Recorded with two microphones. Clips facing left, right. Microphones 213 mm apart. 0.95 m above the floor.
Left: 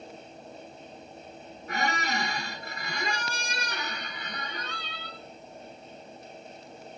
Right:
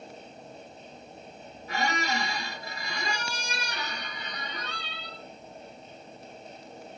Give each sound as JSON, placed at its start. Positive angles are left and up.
{"t": 1.7, "sound": "a squeak", "side_deg": 55, "distance_m": 0.6}